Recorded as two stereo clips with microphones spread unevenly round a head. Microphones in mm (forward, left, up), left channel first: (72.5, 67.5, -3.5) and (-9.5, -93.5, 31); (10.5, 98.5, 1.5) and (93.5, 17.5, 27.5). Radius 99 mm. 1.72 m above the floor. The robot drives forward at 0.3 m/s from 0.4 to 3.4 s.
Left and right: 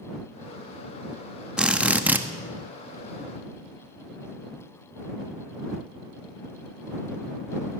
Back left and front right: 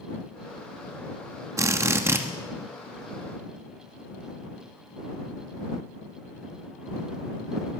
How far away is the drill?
About 1.3 m.